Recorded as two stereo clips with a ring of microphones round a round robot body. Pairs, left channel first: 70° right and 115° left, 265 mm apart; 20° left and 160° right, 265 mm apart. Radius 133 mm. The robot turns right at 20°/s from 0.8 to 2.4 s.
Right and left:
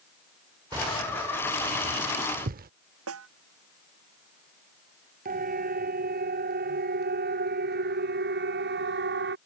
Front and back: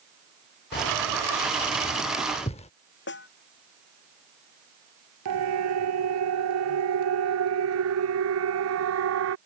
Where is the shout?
No shout in this recording.